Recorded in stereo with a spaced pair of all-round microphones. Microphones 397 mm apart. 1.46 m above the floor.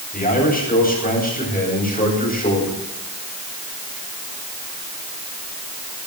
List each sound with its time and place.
0.1 s a man speaking: 20° left (ahead or behind), 9.5 m